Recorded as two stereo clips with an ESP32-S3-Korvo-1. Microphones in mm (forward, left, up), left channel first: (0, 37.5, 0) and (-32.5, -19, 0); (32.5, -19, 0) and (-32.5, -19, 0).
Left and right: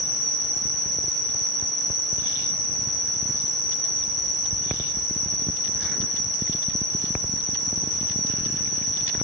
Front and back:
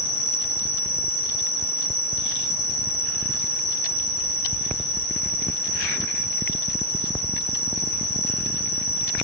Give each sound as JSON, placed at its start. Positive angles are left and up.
{"t": 0.0, "sound": "an insect", "azimuth_deg": 180, "distance_m": 2.5}